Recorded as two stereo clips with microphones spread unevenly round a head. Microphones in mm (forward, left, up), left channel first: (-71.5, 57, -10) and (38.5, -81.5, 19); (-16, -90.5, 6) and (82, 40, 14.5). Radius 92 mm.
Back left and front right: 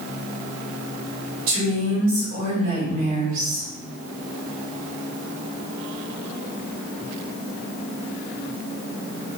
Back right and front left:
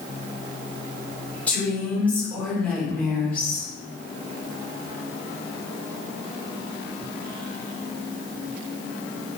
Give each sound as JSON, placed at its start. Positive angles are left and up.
{"t": 1.5, "sound": "a woman speaking", "azimuth_deg": -45, "distance_m": 3.5}